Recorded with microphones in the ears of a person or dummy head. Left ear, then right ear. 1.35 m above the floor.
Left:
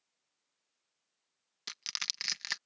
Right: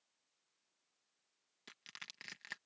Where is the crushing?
45° left (ahead or behind).